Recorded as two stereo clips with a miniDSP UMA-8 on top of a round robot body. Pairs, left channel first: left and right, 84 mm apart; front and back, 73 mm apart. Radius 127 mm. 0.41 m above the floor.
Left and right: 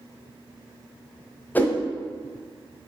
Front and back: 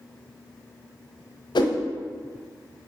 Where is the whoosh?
20° left, 1.1 m.